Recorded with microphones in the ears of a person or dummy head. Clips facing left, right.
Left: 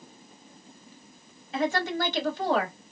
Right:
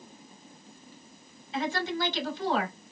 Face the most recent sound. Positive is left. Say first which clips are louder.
# left 3 dB
turn(degrees=55)  # may be behind; listen again after turning